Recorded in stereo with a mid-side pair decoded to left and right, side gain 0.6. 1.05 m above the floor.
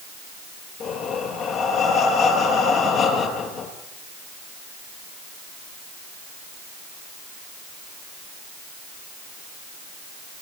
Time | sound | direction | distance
0.8 | breathing | 55° left | 7 m